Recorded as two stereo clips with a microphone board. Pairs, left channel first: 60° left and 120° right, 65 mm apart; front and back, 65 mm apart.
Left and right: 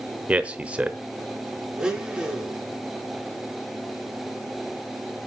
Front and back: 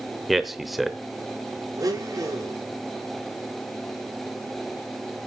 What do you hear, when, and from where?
0.3 s a man speaking: 100° right, 0.8 m
1.8 s a blender: 160° left, 1.9 m